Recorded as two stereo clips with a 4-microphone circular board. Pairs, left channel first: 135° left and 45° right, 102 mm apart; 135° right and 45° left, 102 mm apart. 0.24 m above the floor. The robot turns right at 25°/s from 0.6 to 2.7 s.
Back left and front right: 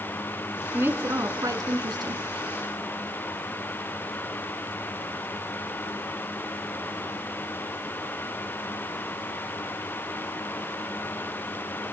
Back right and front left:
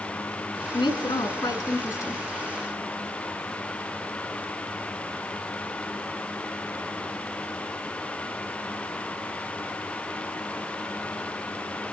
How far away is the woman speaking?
About 3 m.